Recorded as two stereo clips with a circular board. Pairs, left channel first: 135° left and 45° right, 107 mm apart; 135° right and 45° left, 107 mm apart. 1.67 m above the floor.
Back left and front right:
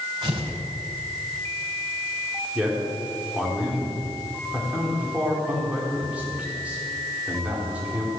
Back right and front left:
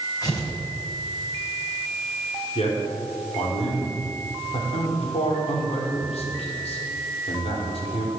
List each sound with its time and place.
0.2 s tearing paper: 85° right, 4 m
2.5 s a man speaking: 125° right, 4.5 m